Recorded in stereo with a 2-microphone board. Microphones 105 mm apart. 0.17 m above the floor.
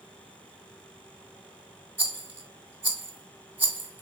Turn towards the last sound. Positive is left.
turn(degrees=-15)  # may be behind; listen again after turning